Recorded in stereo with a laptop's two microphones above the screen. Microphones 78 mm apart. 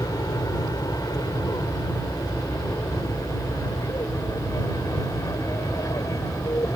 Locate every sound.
0.0 s an aircraft: 60° left (ahead or behind); by 6.8 s 50° left (ahead or behind)